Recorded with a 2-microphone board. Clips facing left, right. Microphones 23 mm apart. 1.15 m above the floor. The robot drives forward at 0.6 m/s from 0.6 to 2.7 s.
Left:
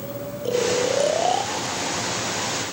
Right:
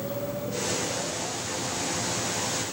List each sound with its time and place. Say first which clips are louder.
0.5 s snoring: left 12 dB; 80° left